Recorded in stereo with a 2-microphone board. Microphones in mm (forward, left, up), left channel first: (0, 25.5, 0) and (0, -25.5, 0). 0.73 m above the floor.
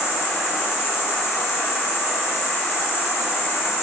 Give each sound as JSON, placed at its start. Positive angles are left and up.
{"t": 0.0, "sound": "an insect", "side_deg": 50, "distance_m": 1.9}